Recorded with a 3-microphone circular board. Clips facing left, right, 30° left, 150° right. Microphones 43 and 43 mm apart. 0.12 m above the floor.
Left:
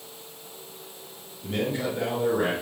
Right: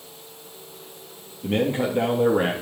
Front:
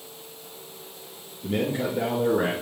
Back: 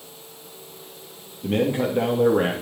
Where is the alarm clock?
I don't hear an alarm clock.